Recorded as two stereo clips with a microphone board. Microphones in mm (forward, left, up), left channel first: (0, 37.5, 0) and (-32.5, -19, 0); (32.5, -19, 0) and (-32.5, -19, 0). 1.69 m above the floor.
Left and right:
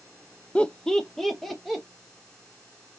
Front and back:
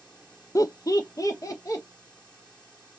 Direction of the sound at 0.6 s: 10° right.